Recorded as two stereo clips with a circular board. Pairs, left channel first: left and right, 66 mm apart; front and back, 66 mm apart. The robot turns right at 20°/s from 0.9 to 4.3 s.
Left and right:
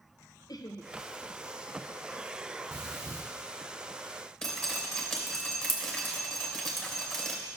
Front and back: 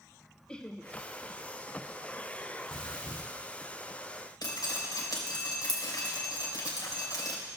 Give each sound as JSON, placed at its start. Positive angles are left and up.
{"t": 0.5, "sound": "laughter", "azimuth_deg": 75, "distance_m": 0.6}
{"t": 2.7, "sound": "breathing", "azimuth_deg": -80, "distance_m": 1.6}
{"t": 4.4, "sound": "dripping", "azimuth_deg": 5, "distance_m": 2.5}